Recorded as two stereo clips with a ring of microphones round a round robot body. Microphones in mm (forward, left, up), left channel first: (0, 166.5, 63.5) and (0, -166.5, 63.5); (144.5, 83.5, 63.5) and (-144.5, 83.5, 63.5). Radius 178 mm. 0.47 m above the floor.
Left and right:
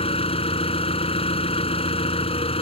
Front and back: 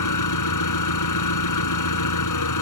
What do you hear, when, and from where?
0.0 s an engine running: 15° left